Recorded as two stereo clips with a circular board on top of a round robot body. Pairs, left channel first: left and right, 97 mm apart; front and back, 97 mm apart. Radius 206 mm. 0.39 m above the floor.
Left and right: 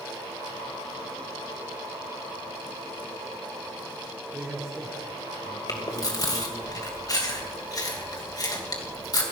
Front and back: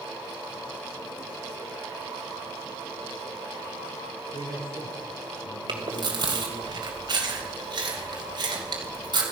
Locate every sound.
4.3 s a man speaking: 5° right, 9.5 m; by 6.7 s 5° left, 8.5 m
5.7 s chewing: 140° left, 3 m